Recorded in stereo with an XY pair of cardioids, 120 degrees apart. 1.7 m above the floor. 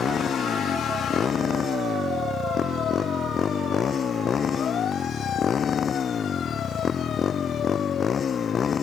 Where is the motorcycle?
40° left; by 8.8 s 35° left.